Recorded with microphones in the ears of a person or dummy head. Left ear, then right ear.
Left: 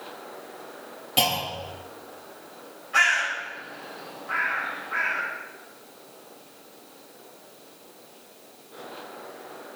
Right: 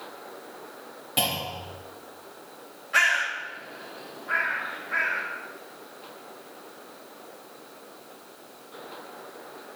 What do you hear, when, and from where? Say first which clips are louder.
1.2 s a clunk: left 4 dB; 10° left (ahead or behind), 2 m
2.9 s a bird: left 1 dB; 25° right (ahead or behind), 3.5 m